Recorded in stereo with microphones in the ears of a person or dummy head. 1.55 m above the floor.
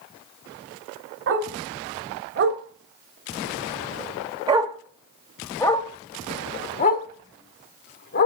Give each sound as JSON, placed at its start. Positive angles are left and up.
{"t": 1.3, "sound": "a dog barking", "side_deg": -65, "distance_m": 2.5}